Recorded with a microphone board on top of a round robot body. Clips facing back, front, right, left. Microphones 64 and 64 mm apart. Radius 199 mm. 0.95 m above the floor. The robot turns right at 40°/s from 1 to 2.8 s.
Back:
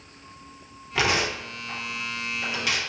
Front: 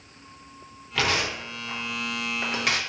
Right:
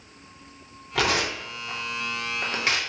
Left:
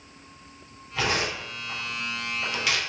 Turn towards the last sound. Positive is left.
turn(degrees=-30)